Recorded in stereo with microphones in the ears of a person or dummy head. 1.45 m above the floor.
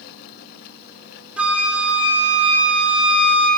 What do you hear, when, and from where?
1.4 s a flute: centre (ahead or behind), 0.8 m